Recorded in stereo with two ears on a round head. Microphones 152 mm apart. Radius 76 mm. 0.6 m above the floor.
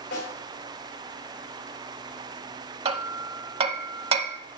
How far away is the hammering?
About 0.7 m.